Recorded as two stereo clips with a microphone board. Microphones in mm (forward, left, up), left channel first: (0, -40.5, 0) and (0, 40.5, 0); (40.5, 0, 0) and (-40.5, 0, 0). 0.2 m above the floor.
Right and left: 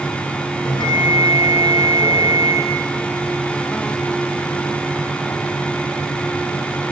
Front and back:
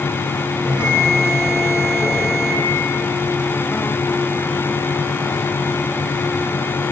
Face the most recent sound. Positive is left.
turn(degrees=-110)